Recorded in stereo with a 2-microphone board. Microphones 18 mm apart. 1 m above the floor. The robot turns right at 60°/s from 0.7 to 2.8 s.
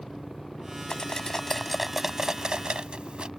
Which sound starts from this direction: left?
Cutlery clinking, at 0.9 s.